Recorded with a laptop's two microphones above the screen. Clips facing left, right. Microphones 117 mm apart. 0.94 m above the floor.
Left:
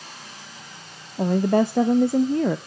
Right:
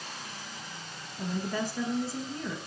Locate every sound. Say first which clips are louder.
1.2 s a woman speaking: left 13 dB; 60° left (ahead or behind), 0.5 m